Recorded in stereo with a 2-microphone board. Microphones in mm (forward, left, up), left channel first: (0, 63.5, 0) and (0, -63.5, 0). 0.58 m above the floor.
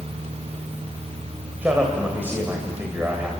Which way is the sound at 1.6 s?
15° right (ahead or behind).